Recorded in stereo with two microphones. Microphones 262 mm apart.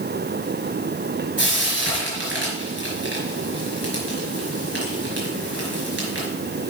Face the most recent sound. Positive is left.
turn(degrees=-50)  # may be behind; listen again after turning